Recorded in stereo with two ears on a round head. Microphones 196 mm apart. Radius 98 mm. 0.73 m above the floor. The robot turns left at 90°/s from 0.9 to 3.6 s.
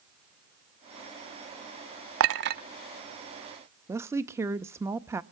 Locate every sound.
2.2 s a clink: 65° right (ahead or behind), 0.8 m; by 2.6 s 35° right (ahead or behind), 0.8 m
3.9 s a woman speaking: 10° right (ahead or behind), 0.6 m